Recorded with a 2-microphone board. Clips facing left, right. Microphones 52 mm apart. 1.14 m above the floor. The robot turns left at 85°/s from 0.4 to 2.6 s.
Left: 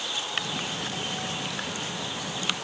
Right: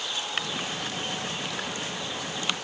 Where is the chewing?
I don't hear chewing.